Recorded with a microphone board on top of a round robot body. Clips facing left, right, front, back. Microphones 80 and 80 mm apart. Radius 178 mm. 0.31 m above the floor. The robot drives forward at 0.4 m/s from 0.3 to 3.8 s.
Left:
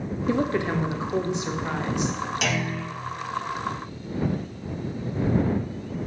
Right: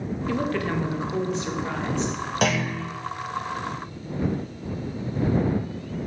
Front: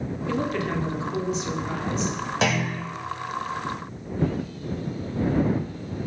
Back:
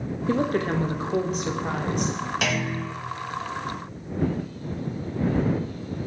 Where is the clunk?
55° right, 2.5 m; by 2.8 s 60° right, 2.5 m.